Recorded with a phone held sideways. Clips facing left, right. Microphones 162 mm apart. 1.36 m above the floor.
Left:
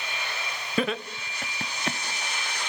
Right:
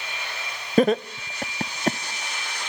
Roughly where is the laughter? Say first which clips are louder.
Right 9 dB; right.